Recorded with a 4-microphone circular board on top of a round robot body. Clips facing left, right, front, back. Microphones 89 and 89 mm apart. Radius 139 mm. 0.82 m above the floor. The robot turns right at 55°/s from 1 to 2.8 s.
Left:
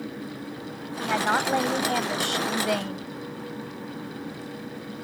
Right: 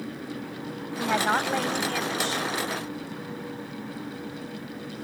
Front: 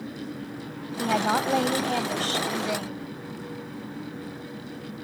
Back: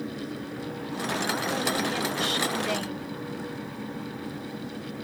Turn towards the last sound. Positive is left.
turn(degrees=85)